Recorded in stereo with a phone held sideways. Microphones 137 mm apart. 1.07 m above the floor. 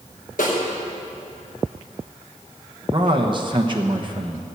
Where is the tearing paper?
I don't hear tearing paper.